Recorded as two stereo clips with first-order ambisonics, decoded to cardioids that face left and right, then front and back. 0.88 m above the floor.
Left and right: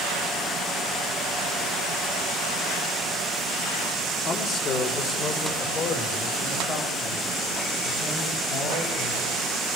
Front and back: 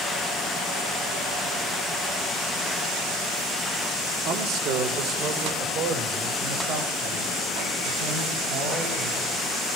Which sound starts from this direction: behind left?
A man speaking, at 4.2 s.